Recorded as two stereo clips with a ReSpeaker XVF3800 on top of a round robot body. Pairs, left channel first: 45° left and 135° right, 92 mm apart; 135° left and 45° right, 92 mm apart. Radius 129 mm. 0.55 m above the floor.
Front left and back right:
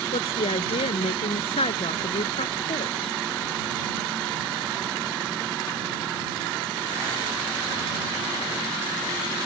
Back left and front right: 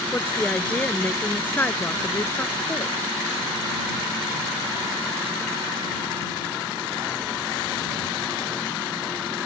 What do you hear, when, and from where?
0.1 s a woman speaking: 60° left; by 3.1 s 70° left